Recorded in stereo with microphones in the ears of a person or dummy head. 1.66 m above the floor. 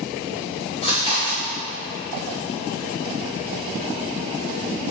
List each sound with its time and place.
0.8 s chewing: 35° left (ahead or behind), 2.5 m